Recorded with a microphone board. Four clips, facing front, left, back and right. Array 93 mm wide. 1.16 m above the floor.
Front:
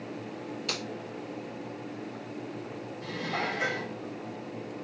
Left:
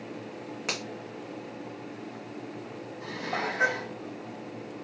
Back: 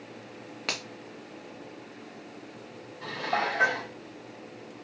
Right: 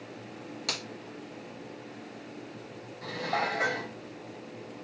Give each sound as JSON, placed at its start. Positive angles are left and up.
{"t": 0.7, "sound": "a finger snap", "azimuth_deg": 150, "distance_m": 1.6}
{"t": 3.0, "sound": "dishes clattering", "azimuth_deg": 160, "distance_m": 3.5}